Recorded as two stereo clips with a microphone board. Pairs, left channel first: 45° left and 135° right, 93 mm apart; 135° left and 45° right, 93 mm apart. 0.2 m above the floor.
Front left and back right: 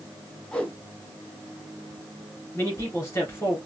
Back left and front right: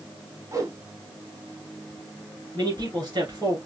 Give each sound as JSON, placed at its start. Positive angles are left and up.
{"t": 0.5, "sound": "a whoosh", "azimuth_deg": -30, "distance_m": 1.0}
{"t": 2.5, "sound": "a man speaking", "azimuth_deg": -15, "distance_m": 2.5}